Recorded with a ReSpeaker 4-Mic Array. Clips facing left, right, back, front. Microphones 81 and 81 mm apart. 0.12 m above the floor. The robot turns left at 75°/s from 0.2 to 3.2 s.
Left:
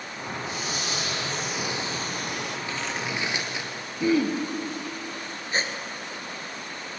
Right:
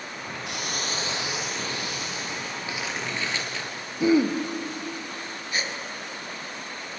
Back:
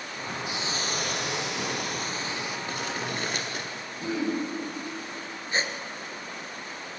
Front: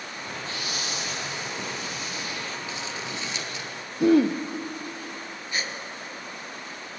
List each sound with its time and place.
0.5 s a hiss: 105° right, 2.5 m; by 2.6 s 95° left, 2.5 m
2.7 s crumpling: 160° right, 2.5 m; by 3.7 s 160° left, 2.5 m
4.0 s throat clearing: 20° right, 1.7 m
5.5 s a gasp: 135° left, 1.9 m